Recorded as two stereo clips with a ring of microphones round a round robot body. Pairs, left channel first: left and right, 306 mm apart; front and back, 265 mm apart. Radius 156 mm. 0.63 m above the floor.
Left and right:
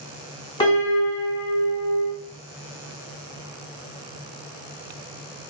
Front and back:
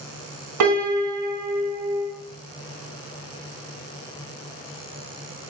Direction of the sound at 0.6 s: 165° left.